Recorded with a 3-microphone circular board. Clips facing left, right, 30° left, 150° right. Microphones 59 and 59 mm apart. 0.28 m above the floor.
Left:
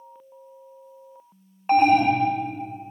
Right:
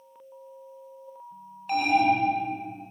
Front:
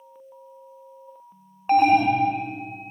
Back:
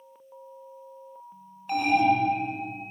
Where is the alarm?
55° left, 1.2 m.